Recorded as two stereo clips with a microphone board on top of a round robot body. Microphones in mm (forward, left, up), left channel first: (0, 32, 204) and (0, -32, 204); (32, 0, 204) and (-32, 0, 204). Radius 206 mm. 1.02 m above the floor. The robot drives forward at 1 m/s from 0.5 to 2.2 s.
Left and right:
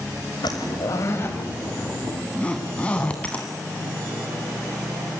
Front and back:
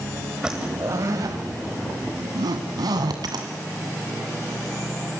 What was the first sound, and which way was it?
A zipper, 100° left.